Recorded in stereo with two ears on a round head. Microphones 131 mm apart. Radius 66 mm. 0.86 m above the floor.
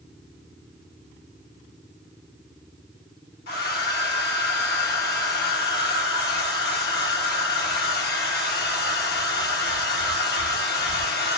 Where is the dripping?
I don't hear dripping.